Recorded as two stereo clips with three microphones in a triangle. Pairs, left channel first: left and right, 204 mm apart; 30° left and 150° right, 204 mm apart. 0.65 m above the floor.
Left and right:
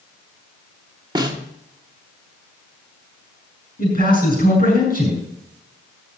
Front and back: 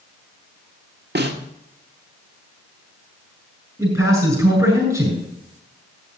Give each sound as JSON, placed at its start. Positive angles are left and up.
{"t": 1.1, "sound": "a snare drum", "azimuth_deg": -155, "distance_m": 1.6}
{"t": 3.8, "sound": "a man speaking", "azimuth_deg": 135, "distance_m": 8.0}